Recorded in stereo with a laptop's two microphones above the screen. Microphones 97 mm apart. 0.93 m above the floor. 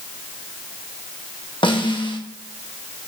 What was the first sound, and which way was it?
A snare drum, 55° left (ahead or behind).